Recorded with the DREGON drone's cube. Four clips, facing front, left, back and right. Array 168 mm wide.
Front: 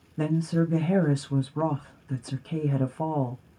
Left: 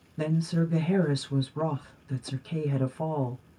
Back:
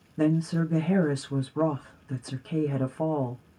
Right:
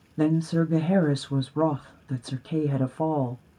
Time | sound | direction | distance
0.2 | a woman speaking | 90° right | 0.6 m